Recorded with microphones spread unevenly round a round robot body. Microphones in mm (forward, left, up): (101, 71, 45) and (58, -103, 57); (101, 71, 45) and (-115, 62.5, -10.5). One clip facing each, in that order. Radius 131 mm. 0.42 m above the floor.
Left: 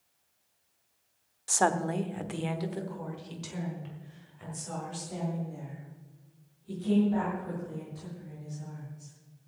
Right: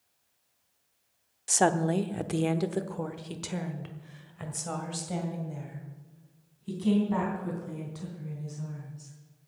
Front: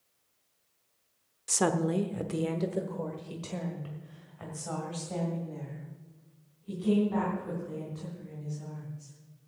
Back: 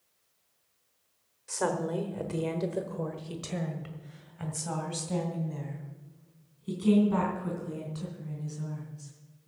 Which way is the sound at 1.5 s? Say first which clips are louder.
Right 3 dB, front 3 dB; 40° right.